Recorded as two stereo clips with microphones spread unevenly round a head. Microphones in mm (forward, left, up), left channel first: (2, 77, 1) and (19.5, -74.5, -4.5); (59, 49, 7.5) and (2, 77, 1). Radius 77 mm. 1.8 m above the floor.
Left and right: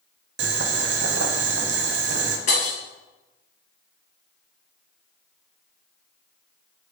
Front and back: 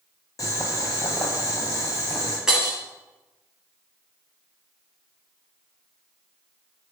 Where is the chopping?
I don't hear chopping.